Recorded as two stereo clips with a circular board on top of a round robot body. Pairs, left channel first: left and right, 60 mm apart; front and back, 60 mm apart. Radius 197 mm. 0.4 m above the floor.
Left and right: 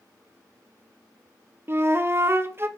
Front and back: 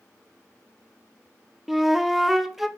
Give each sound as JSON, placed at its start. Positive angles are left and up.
{"t": 1.7, "sound": "a flute", "azimuth_deg": -95, "distance_m": 0.7}